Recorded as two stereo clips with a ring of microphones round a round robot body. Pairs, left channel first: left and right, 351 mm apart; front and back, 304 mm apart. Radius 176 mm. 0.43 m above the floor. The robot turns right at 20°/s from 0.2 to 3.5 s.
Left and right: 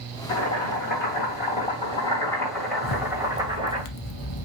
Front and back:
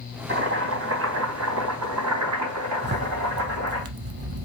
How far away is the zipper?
About 0.6 m.